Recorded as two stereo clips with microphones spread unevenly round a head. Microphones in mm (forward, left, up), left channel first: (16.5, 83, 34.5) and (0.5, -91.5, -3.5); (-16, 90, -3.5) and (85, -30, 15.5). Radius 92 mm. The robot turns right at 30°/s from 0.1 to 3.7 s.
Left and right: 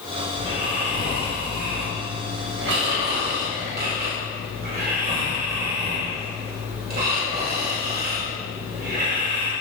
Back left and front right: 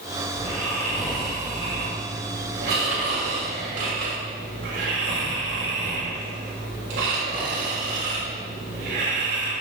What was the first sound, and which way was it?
Snoring, 165° right.